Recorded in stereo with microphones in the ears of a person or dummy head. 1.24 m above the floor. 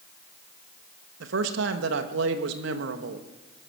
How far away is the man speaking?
About 1.3 m.